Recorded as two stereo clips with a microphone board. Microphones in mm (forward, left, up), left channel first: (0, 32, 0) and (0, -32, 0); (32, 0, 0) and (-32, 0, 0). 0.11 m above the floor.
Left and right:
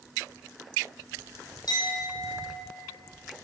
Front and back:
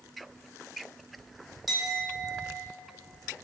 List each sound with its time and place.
1.7 s a clink: 90° left, 2.5 m